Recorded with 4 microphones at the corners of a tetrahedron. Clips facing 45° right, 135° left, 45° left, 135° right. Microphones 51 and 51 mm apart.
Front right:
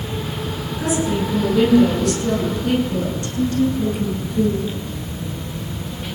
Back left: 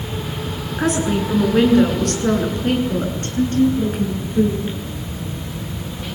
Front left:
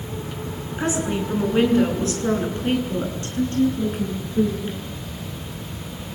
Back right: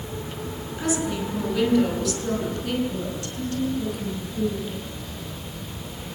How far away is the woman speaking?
About 7.5 m.